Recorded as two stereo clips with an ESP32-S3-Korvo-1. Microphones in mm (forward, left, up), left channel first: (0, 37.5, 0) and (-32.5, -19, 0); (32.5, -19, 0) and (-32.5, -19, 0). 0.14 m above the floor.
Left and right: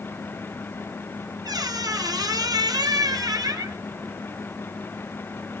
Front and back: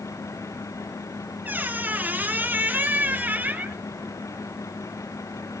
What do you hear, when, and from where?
1.4 s a squeak: 115° right, 0.9 m